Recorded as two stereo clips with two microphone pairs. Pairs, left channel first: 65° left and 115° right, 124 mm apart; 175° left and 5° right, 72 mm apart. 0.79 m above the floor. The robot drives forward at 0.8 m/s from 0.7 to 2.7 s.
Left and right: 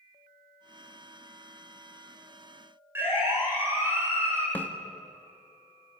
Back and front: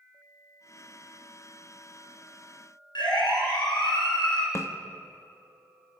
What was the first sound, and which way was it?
A siren, 170° left.